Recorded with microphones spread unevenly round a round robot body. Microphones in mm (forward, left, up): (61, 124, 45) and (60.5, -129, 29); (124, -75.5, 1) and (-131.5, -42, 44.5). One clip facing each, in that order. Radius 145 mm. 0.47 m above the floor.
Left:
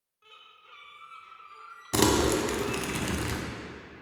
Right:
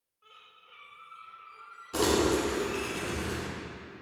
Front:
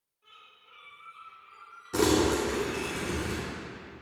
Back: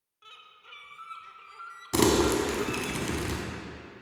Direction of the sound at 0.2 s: 155° left.